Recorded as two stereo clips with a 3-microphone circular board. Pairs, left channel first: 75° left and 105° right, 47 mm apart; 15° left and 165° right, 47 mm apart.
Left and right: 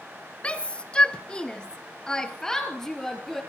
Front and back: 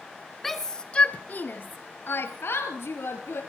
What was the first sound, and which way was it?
A shout, 100° left.